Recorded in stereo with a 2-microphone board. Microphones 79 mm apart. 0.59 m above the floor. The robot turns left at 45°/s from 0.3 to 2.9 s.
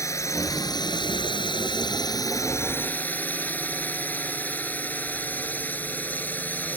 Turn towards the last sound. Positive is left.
turn(degrees=20)